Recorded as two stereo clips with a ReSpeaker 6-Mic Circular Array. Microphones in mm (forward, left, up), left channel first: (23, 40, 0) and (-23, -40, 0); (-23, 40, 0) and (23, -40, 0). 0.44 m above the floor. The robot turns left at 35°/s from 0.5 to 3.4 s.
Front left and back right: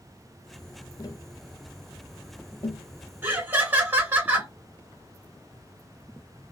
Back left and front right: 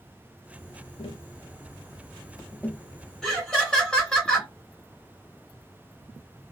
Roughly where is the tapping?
Left.